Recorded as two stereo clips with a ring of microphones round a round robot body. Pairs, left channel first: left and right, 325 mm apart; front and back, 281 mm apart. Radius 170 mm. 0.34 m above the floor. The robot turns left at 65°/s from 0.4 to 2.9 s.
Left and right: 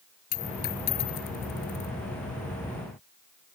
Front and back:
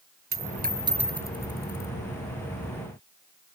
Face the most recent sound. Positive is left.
turn(degrees=-25)